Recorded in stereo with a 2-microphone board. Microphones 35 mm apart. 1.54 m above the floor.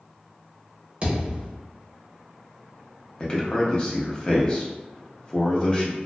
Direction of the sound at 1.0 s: 25° right (ahead or behind).